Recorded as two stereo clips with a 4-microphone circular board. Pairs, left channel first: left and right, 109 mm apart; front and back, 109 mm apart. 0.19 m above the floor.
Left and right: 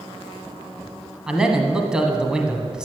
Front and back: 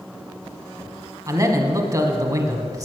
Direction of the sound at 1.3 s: 170° right.